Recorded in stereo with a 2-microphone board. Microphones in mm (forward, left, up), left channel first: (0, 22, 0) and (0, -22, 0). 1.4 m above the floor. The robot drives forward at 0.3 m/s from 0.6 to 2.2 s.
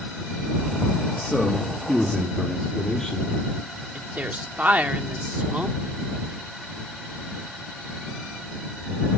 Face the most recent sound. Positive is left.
turn(degrees=-40)  # may be behind; listen again after turning